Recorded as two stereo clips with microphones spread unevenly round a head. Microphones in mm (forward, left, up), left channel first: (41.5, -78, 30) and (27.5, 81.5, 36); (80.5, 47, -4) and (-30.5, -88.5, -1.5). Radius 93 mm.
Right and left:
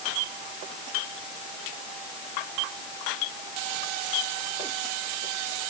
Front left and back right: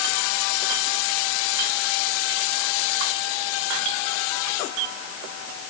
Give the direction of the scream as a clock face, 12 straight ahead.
No scream in this recording.